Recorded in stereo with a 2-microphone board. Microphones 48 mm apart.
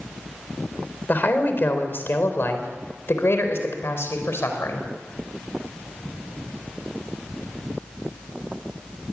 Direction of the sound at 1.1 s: 45° left (ahead or behind).